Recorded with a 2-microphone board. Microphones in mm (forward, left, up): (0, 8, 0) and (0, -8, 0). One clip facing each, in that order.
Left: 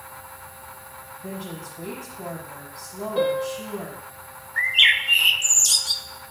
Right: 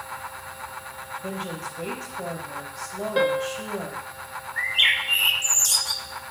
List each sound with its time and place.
1.2 s a woman speaking: 55° right (ahead or behind), 4 m
3.2 s a piano: 50° right (ahead or behind), 0.9 m
4.6 s a bird: 20° left (ahead or behind), 0.5 m